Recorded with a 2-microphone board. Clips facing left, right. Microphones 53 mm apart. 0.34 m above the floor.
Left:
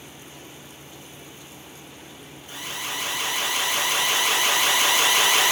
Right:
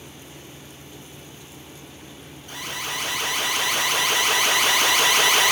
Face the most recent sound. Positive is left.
turn(degrees=-55)  # may be behind; listen again after turning